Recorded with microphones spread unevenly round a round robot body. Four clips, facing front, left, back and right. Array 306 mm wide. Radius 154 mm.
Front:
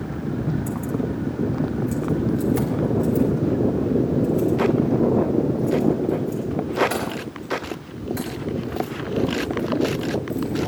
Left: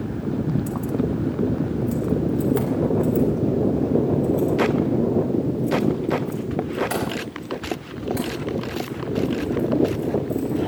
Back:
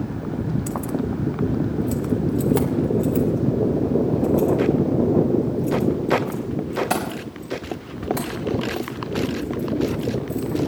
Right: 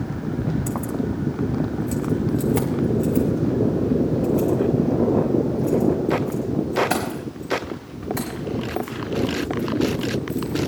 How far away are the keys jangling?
About 0.5 m.